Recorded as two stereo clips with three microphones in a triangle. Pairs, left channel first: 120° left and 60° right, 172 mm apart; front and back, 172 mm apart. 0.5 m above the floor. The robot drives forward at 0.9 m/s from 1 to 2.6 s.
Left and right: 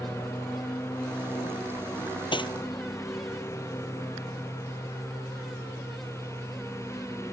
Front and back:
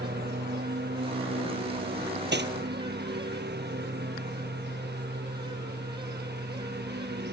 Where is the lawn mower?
165° right.